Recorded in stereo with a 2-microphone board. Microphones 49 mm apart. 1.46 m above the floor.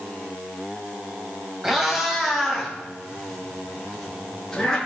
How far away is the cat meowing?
About 2.5 m.